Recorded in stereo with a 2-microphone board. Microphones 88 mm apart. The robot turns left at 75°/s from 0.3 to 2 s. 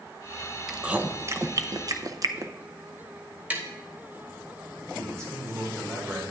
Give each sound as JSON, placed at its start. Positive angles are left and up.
{"t": 0.7, "sound": "chewing", "side_deg": 0, "distance_m": 0.5}
{"t": 3.5, "sound": "tapping", "side_deg": -15, "distance_m": 1.0}
{"t": 4.9, "sound": "a man speaking", "side_deg": -35, "distance_m": 3.0}